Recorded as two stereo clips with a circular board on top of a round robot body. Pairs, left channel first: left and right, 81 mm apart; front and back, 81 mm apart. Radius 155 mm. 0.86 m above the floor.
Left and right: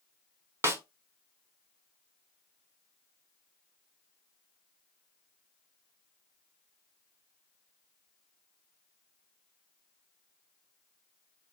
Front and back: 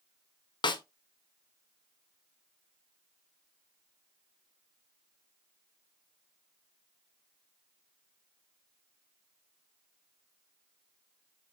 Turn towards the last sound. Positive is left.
turn(degrees=-30)